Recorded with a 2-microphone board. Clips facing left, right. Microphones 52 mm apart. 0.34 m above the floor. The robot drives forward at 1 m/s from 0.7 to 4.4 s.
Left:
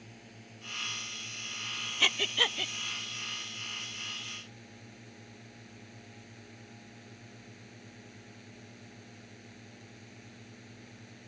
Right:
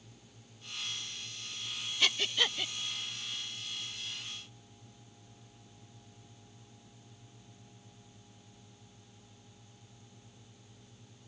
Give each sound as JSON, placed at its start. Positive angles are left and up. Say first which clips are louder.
{"t": 0.0, "sound": "a drone", "louder": "left 7 dB", "side_deg": 55}
{"t": 2.0, "sound": "breathing", "louder": "left 2 dB", "side_deg": 20}